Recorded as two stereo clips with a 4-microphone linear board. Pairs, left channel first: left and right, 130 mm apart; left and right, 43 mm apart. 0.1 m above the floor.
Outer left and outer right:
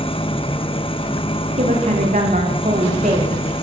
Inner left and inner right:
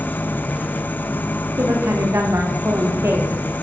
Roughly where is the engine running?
Left.